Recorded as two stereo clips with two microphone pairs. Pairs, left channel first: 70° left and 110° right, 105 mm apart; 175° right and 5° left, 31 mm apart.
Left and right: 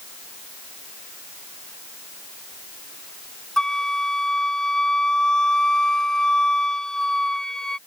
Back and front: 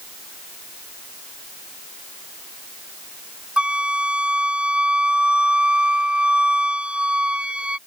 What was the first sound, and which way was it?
A flute, 10° right.